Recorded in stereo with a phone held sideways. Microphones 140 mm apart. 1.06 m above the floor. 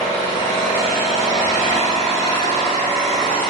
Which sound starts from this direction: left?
An engine running, at 0.0 s.